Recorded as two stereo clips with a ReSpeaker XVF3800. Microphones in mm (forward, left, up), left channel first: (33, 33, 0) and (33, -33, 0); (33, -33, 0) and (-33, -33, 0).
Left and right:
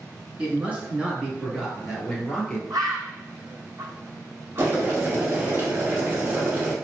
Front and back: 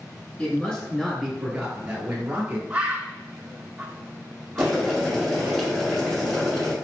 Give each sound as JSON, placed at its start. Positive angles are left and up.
{"t": 0.4, "sound": "a man speaking", "azimuth_deg": -50, "distance_m": 1.3}
{"t": 2.7, "sound": "a bird", "azimuth_deg": -110, "distance_m": 0.9}
{"t": 4.6, "sound": "boiling", "azimuth_deg": -75, "distance_m": 1.3}